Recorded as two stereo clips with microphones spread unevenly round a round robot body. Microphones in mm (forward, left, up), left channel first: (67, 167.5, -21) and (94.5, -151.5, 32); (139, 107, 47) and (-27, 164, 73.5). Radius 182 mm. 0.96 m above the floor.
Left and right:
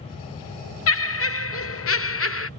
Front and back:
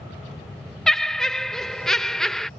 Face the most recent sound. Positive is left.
turn(degrees=65)